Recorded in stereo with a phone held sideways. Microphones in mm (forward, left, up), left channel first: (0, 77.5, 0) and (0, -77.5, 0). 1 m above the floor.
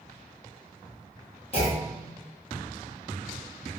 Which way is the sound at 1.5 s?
40° left (ahead or behind).